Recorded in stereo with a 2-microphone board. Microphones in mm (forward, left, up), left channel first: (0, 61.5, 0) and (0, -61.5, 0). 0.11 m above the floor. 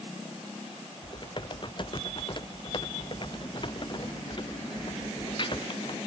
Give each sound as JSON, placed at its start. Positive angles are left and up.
{"t": 1.0, "sound": "typing on a keyboard", "side_deg": 40}